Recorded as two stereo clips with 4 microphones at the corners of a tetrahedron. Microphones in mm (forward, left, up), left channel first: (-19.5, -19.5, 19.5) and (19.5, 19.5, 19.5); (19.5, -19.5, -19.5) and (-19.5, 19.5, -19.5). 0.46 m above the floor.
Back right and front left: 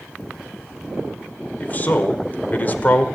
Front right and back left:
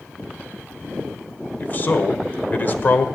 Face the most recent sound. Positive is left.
turn(degrees=-85)